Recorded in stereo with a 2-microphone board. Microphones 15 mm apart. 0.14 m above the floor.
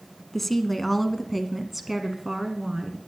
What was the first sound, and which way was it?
A woman speaking, 15° left (ahead or behind).